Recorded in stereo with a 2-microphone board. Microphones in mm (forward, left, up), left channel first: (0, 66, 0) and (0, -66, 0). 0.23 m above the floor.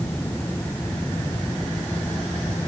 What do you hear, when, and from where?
Only background noise.